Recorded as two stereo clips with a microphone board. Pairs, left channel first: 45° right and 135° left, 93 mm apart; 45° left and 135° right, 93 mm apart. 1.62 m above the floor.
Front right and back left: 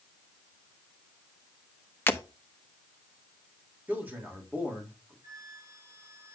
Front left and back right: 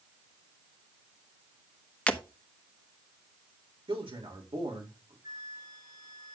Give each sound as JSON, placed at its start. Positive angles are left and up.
{"t": 2.1, "sound": "breaking glass", "azimuth_deg": -15, "distance_m": 0.9}
{"t": 3.9, "sound": "a man speaking", "azimuth_deg": -155, "distance_m": 3.0}
{"t": 5.2, "sound": "a flute", "azimuth_deg": -170, "distance_m": 6.5}